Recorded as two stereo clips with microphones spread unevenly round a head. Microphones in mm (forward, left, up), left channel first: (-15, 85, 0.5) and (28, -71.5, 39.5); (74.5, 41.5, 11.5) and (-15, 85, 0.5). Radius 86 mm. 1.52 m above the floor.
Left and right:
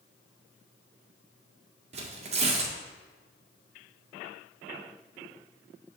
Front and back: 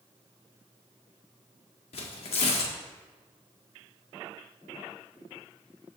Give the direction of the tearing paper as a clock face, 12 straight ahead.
1 o'clock.